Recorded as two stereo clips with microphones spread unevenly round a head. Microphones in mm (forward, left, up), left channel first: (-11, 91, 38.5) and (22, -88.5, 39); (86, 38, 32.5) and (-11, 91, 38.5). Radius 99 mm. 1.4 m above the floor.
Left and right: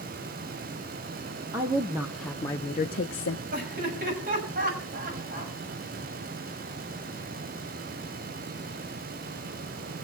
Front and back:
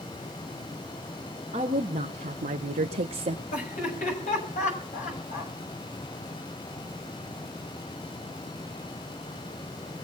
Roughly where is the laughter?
Ahead right.